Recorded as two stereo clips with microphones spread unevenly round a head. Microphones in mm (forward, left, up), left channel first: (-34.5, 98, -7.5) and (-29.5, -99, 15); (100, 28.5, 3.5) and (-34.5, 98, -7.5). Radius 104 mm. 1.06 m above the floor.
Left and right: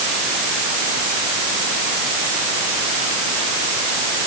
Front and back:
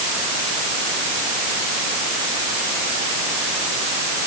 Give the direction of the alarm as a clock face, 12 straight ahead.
No alarm in this recording.